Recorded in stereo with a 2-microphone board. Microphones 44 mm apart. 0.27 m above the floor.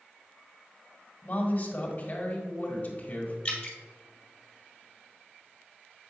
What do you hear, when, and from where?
1.2 s a woman speaking: 40° left (ahead or behind), 1.8 m
3.5 s dripping: 20° left (ahead or behind), 2 m